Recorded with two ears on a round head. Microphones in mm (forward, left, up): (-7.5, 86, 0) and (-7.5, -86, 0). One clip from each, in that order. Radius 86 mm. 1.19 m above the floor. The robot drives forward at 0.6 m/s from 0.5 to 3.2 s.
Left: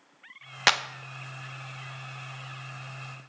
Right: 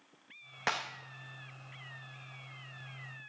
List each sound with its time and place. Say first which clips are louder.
0.7 s a clap: left 11 dB; 85° left, 1.0 m; by 0.8 s 80° left, 1.0 m